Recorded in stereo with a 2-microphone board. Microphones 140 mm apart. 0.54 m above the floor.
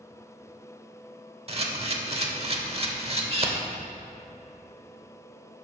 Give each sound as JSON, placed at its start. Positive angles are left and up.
{"t": 1.5, "sound": "a camera shutter", "side_deg": -40, "distance_m": 1.0}